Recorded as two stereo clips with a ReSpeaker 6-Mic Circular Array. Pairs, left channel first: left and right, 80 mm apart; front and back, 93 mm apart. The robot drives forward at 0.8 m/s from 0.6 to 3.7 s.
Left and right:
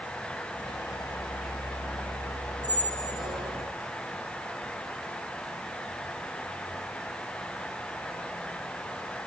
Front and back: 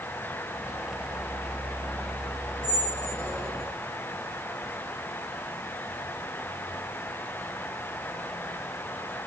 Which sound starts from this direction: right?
A squeak, at 2.6 s.